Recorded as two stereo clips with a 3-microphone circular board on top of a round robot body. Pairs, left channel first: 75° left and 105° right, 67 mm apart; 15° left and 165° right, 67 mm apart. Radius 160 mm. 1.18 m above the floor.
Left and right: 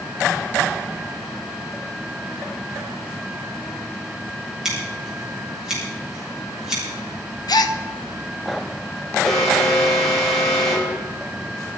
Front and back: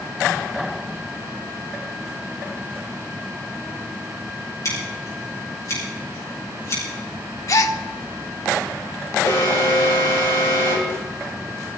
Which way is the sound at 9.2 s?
10° right.